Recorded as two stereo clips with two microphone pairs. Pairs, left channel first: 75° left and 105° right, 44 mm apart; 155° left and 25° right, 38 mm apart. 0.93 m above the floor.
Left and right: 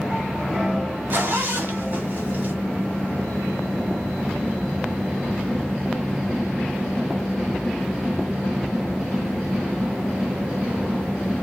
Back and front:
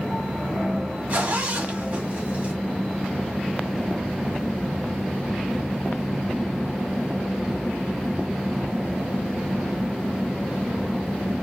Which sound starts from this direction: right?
A zipper, at 1.1 s.